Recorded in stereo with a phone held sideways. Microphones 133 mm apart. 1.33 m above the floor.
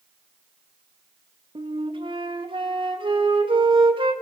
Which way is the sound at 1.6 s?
40° right (ahead or behind).